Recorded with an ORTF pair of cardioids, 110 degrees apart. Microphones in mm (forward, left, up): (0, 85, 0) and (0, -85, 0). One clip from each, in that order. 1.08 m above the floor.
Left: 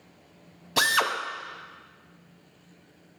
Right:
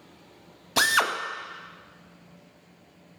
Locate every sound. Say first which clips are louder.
0.8 s a drill: right 1 dB; 10° right, 0.8 m